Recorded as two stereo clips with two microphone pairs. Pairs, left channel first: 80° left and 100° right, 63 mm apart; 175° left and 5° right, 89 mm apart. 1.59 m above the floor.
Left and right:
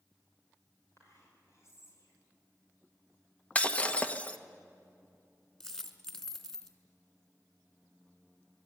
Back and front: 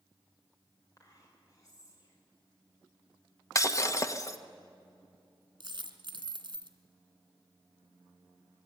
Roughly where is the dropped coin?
Ahead.